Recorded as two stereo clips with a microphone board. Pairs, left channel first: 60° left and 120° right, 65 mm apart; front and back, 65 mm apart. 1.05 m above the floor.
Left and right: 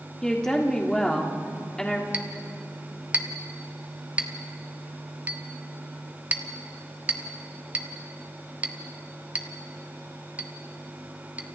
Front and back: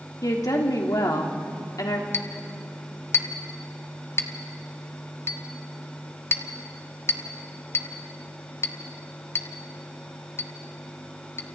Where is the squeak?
I don't hear a squeak.